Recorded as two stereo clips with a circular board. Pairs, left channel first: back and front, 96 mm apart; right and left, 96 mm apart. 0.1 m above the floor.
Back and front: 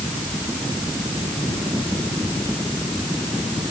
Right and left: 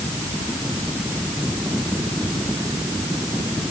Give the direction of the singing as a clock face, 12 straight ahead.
I don't hear singing.